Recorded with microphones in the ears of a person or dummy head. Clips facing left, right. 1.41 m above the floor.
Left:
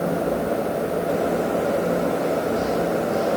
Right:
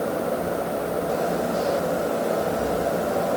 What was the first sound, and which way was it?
Only background noise.